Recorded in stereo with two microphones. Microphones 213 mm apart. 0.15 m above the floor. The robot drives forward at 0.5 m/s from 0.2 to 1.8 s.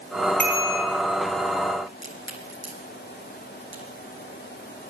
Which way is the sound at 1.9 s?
65° right (ahead or behind).